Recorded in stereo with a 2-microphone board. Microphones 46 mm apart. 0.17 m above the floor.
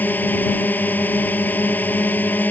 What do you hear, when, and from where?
0.0 s a drone: 40° left (ahead or behind)